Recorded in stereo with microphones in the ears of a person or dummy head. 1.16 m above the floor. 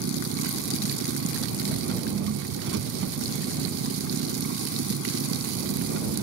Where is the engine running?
75° right (ahead or behind).